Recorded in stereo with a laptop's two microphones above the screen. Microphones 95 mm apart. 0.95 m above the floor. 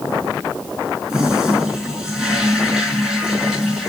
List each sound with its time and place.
1.1 s a toilet flushing: 5° right (ahead or behind), 3.5 m